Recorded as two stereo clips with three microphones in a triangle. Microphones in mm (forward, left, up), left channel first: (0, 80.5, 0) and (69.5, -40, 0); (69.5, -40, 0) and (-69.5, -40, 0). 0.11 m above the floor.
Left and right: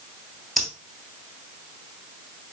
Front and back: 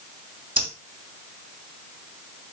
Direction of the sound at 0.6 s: 150° right.